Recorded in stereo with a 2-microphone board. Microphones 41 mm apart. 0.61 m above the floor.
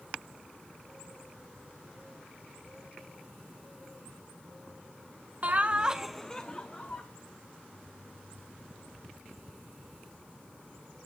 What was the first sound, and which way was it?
Laughter, 40° right (ahead or behind).